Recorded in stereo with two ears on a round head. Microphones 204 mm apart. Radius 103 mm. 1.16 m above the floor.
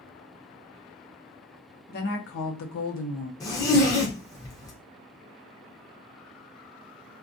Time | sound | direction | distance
1.9 | a woman speaking | 40° left (ahead or behind) | 0.7 m
3.4 | a zipper | 15° left (ahead or behind) | 0.6 m